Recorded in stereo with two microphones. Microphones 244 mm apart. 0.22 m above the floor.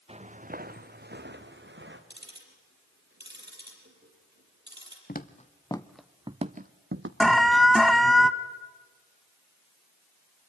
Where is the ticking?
45° right (ahead or behind), 6.5 m.